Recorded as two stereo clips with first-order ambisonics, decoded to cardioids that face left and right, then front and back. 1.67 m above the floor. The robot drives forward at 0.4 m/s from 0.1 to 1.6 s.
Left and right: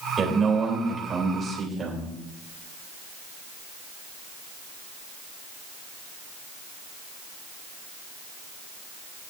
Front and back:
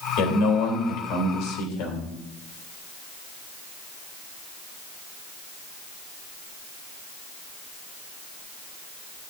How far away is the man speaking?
About 3.5 m.